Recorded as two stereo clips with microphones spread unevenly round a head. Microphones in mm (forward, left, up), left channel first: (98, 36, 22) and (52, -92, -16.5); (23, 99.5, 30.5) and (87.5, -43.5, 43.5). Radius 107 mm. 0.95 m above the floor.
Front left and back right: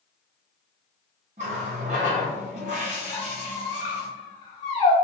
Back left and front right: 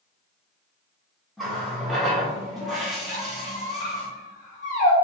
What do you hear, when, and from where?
1.4 s a running tap: 155° right, 0.6 m
3.1 s a squeak: 85° left, 1.5 m